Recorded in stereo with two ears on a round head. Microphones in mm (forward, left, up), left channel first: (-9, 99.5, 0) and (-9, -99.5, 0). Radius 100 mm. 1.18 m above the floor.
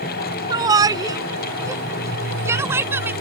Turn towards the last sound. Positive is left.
turn(degrees=-10)  # may be behind; listen again after turning